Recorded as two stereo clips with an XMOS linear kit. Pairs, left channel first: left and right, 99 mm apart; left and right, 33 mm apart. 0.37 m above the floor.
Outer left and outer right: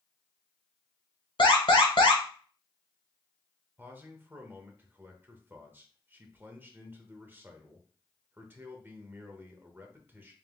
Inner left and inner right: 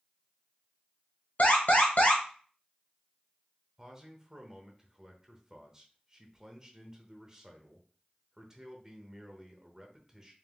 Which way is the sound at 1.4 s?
65° left (ahead or behind).